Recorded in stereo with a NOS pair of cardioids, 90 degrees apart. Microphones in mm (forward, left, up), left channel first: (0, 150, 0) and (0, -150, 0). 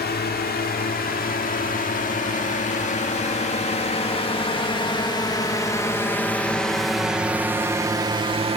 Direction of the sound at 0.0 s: 35° left.